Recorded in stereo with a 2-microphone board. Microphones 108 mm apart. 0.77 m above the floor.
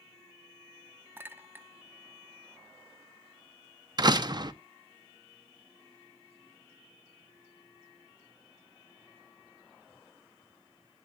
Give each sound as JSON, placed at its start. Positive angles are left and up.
{"t": 1.2, "sound": "a clink", "side_deg": -20, "distance_m": 0.8}
{"t": 4.0, "sound": "a door slam", "side_deg": -40, "distance_m": 0.7}